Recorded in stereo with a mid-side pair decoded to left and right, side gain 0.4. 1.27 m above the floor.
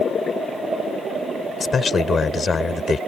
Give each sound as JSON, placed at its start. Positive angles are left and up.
{"t": 1.6, "sound": "a man speaking", "azimuth_deg": 45}